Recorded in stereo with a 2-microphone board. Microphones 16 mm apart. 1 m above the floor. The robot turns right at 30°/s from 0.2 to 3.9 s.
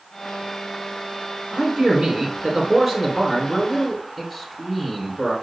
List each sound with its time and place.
1.5 s a man speaking: 75° right, 4 m; by 5.3 s 5° right, 4 m